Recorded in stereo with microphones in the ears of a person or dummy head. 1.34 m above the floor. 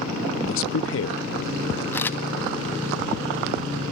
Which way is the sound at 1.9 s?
15° left (ahead or behind).